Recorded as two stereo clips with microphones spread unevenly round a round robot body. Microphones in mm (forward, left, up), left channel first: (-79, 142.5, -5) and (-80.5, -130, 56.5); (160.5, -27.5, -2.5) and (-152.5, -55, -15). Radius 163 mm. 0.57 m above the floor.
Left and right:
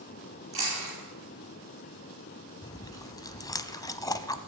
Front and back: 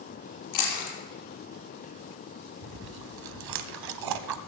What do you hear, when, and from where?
0.5 s chewing: 20° right, 5 m
2.6 s chewing: 170° left, 0.8 m